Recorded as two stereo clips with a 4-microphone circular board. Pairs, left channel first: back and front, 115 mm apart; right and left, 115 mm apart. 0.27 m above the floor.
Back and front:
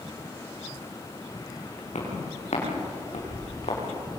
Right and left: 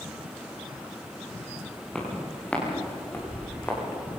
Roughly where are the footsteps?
Behind.